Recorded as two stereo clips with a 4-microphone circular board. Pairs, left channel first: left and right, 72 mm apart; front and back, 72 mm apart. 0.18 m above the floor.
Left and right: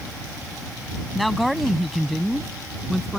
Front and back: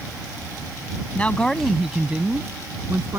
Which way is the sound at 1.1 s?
Straight ahead.